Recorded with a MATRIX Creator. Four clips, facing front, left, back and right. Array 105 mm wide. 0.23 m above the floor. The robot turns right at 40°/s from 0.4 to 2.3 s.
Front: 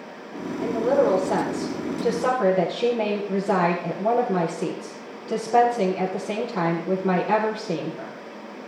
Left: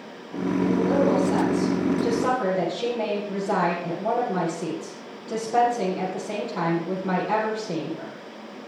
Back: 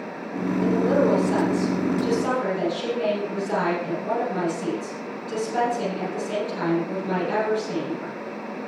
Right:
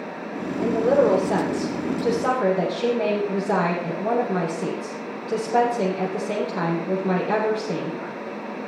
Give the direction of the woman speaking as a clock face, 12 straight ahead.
2 o'clock.